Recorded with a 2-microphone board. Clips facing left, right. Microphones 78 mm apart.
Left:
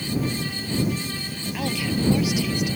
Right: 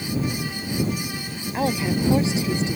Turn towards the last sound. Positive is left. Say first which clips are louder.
# right 4 dB
turn(degrees=-30)  # may be behind; listen again after turning